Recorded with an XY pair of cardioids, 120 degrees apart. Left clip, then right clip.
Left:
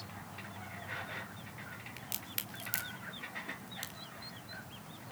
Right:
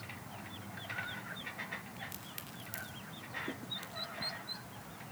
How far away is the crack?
About 3.5 m.